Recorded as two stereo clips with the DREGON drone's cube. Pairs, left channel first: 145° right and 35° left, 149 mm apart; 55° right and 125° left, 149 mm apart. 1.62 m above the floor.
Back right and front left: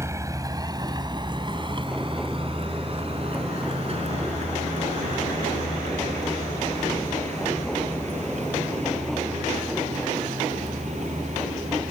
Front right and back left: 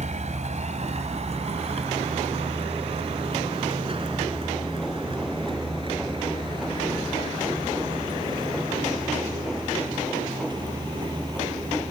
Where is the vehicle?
100° left; by 11.9 s 65° left.